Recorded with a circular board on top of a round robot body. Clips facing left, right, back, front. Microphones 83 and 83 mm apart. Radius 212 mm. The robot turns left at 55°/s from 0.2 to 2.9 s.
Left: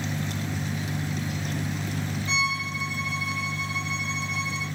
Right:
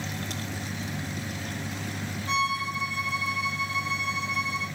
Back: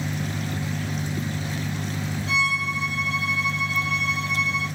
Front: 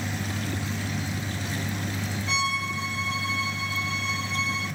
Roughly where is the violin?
Behind right.